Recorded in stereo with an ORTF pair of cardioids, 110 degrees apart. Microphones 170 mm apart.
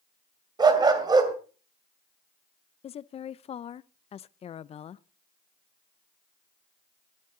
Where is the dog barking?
30° right, 2.5 m.